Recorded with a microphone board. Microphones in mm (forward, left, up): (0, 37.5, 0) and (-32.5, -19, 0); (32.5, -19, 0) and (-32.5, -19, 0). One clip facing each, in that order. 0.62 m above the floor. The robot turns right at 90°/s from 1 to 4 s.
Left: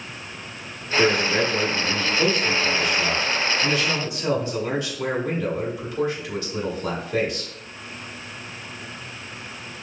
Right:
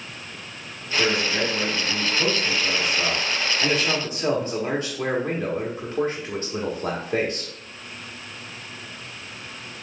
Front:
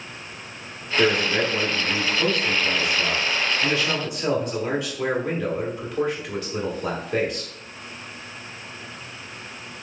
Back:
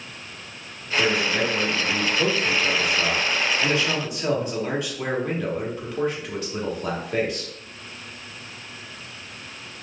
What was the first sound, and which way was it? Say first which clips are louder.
A man speaking: left 3 dB, front 2 dB; straight ahead.